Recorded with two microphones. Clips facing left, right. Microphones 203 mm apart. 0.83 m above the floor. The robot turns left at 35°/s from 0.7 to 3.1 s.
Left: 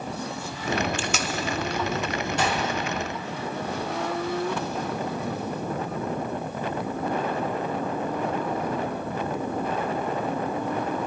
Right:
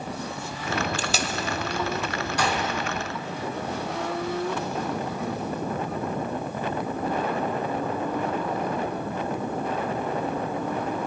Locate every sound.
1.0 s tape being pulled: 40° right (ahead or behind), 0.7 m; by 1.3 s 30° right (ahead or behind), 0.7 m
2.4 s a gunshot: 25° left (ahead or behind), 1.7 m; by 2.8 s 15° left (ahead or behind), 1.7 m